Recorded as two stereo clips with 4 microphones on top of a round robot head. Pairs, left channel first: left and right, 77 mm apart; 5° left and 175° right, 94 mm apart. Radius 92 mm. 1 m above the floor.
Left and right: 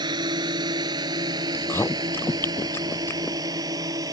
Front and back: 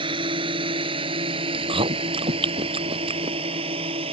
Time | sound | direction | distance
0.0 | a drone | 130° right | ?
1.5 | chewing | 160° left | ?